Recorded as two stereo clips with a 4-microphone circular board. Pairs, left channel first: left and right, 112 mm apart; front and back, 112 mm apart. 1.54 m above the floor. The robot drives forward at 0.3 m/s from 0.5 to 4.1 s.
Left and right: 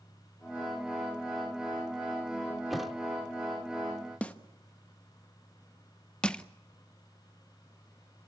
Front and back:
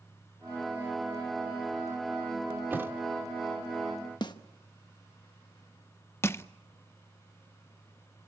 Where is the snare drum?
15° left, 1.1 m.